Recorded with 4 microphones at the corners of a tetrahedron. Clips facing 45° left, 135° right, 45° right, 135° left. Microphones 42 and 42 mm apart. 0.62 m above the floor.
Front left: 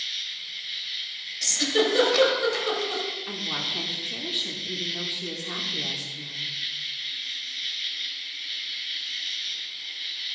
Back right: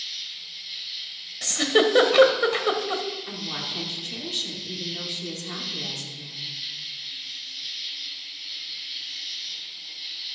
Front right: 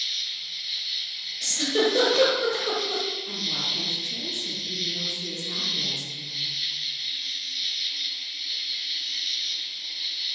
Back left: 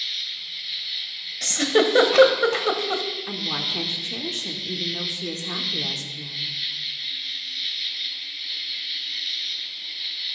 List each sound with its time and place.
0.0 s an insect: 65° left, 0.9 m
1.4 s a giggle: 170° left, 1.1 m
3.3 s a woman speaking: 125° left, 1.1 m